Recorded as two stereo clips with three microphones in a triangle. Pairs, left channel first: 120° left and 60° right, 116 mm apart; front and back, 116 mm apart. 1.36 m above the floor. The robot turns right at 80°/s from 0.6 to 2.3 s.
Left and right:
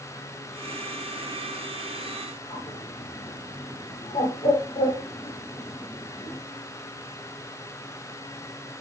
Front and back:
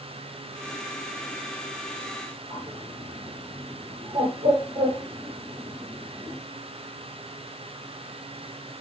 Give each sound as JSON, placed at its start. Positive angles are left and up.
{"t": 2.5, "sound": "a bird", "azimuth_deg": 135, "distance_m": 2.5}